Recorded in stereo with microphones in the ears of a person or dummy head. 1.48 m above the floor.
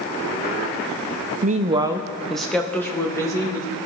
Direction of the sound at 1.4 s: 40° right (ahead or behind).